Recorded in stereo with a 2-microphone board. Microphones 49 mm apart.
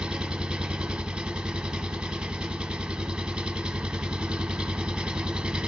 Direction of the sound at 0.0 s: 20° right (ahead or behind).